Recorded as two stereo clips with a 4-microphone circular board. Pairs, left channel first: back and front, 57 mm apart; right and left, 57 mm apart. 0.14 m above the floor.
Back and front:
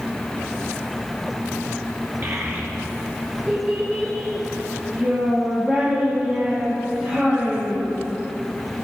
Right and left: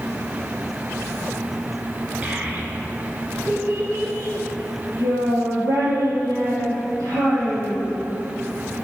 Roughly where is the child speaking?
Ahead left.